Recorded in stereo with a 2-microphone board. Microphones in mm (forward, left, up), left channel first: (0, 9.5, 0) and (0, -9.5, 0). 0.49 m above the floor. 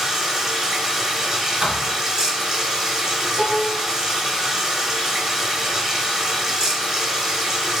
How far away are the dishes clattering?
About 0.5 m.